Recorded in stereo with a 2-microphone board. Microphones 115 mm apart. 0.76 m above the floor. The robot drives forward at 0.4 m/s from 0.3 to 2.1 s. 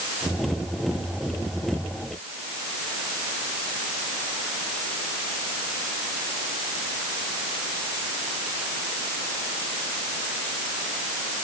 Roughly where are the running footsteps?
No running footsteps in this recording.